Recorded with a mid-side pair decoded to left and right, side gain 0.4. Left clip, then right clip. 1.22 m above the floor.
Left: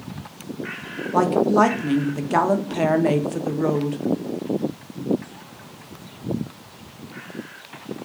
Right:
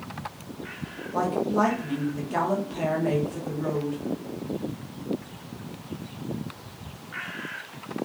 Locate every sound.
1.1 s a woman speaking: 70° left, 0.5 m